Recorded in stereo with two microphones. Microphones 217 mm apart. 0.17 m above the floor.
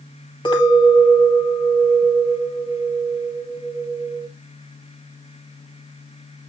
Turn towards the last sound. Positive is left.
turn(degrees=20)  # may be behind; listen again after turning